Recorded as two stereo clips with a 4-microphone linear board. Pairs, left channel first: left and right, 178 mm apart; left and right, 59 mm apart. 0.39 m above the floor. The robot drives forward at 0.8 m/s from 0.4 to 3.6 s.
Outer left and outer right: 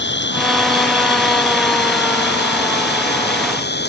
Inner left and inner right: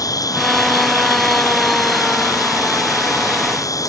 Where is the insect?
85° left; by 3.9 s 70° left (ahead or behind).